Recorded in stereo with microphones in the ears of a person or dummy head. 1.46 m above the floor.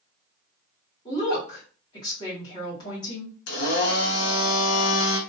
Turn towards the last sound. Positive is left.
turn(degrees=70)  # may be behind; listen again after turning